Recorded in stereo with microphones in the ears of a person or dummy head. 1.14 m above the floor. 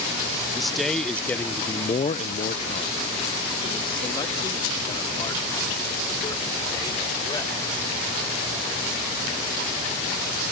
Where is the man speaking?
Centre (ahead or behind); by 7.8 s 15° left (ahead or behind).